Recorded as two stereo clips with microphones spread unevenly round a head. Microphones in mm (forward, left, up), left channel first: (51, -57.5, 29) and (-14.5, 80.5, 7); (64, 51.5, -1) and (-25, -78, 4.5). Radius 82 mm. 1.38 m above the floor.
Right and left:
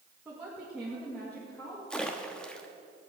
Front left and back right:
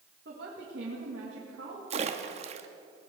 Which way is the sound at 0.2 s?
165° right.